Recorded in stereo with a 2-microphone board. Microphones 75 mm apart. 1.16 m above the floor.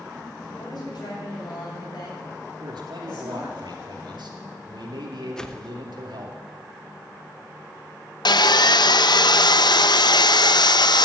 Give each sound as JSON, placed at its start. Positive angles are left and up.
{"t": 0.4, "sound": "a woman speaking", "side_deg": 70, "distance_m": 7.0}
{"t": 2.6, "sound": "a man speaking", "side_deg": -80, "distance_m": 2.5}
{"t": 5.4, "sound": "a whoosh", "side_deg": 10, "distance_m": 0.8}
{"t": 8.2, "sound": "sawing", "side_deg": 70, "distance_m": 0.5}